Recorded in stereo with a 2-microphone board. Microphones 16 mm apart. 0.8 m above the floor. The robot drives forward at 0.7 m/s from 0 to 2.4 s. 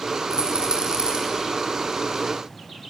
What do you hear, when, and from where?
0.3 s a rattle: 70° right (ahead or behind), 9 m; by 1.2 s 65° right (ahead or behind), 9 m